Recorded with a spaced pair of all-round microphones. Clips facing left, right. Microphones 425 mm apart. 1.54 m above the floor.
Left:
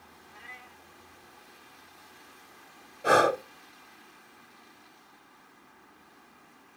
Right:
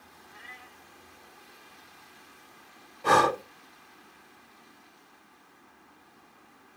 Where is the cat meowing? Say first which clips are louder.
Right 1 dB; 30° right (ahead or behind), 1.1 m.